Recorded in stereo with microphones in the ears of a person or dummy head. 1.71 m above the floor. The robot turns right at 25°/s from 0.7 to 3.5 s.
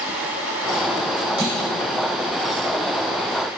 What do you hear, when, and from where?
1.4 s a clunk: 35° right (ahead or behind), 2.5 m; by 1.7 s 25° right (ahead or behind), 2.5 m